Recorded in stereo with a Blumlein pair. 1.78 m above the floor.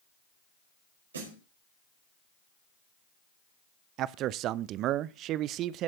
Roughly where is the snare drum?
Ahead right.